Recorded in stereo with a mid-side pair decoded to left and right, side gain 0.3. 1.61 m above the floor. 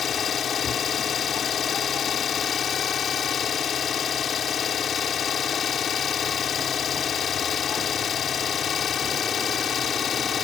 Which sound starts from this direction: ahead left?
An engine running, at 0.0 s.